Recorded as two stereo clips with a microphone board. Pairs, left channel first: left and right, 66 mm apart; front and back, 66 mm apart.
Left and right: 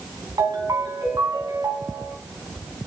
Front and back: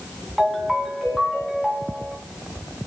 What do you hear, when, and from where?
0.4 s a ringtone: 90° right, 2 m